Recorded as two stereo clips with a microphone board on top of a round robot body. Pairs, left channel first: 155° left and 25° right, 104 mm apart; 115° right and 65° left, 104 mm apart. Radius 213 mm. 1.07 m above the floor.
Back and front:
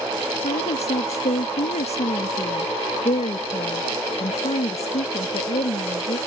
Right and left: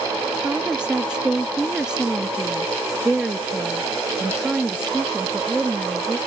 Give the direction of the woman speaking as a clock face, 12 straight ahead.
7 o'clock.